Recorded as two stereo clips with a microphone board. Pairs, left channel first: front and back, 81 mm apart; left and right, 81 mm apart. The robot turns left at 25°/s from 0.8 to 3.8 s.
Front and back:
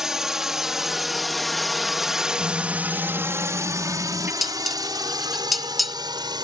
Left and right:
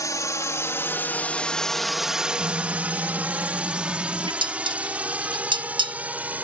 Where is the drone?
100° left; by 6.4 s 160° right.